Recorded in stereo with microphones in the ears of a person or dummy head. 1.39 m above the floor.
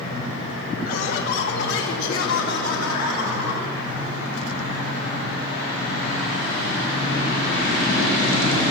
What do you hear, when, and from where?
0.8 s laughter: 50° left (ahead or behind), 3 m; by 3.7 s 75° left (ahead or behind), 4.5 m